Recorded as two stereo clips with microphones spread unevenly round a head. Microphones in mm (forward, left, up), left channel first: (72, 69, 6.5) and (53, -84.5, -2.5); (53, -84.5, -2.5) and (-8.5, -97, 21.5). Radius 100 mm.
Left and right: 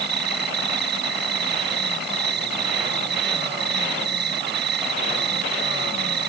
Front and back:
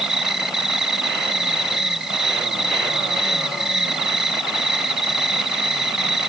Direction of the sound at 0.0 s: 85° right.